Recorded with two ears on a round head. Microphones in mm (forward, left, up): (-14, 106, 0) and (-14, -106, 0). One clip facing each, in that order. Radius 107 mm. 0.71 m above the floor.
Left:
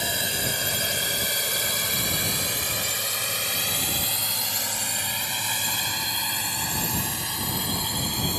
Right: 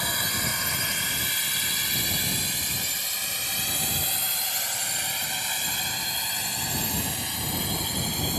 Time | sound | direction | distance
0.0 | a drone | 25° left (ahead or behind) | ?